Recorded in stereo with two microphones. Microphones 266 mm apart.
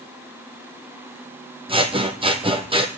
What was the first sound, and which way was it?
Scissors, 20° right (ahead or behind).